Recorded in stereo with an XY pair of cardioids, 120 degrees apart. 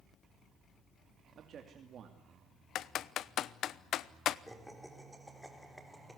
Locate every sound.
1.4 s a man speaking: 50° right, 2.5 m
2.8 s typing on a keyboard: 60° left, 0.8 m
4.5 s laughter: straight ahead, 4 m